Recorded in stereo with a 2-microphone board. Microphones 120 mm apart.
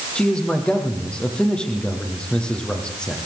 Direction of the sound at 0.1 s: 10° left (ahead or behind).